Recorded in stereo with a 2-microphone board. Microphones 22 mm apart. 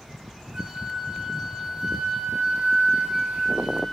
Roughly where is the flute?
Right.